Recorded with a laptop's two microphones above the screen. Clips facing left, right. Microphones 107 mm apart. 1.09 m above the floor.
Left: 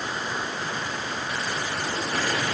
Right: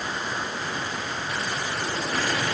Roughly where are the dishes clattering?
I don't hear dishes clattering.